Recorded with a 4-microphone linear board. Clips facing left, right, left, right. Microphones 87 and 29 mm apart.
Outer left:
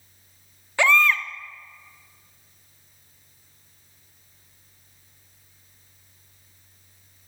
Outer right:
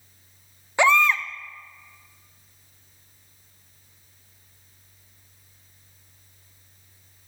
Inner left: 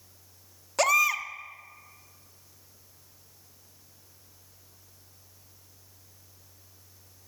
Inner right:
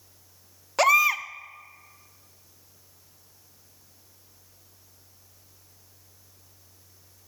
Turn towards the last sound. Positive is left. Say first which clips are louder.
# outer right 1 dB, inner right 3 dB
turn(degrees=-15)  # may be behind; listen again after turning